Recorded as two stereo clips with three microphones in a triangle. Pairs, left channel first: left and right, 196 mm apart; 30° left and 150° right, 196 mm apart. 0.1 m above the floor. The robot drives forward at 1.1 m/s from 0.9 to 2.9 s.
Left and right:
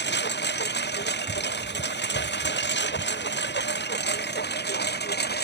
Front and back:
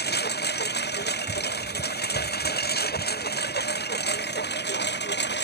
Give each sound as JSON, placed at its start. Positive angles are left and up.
{"t": 0.0, "sound": "a lawn mower", "azimuth_deg": 65}